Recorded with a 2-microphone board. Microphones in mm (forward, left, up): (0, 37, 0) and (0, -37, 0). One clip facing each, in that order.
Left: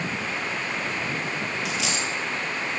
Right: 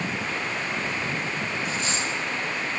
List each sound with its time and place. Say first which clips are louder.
1.6 s a dropped coin: even; 65° left (ahead or behind), 2.5 m